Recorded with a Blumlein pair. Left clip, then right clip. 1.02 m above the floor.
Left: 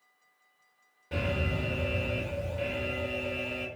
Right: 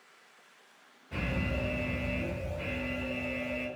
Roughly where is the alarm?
Ahead left.